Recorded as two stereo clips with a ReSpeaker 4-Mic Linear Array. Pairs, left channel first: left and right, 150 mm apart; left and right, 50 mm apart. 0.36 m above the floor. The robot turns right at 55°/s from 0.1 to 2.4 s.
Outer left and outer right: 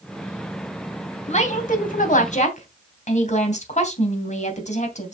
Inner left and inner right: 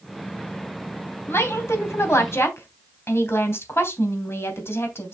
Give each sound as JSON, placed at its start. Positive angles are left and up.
{"t": 1.3, "sound": "a woman speaking", "azimuth_deg": 55, "distance_m": 3.0}